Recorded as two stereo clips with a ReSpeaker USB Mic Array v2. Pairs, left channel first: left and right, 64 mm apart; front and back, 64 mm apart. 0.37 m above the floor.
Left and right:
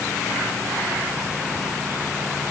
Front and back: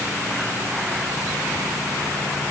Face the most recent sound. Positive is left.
No sound to turn to.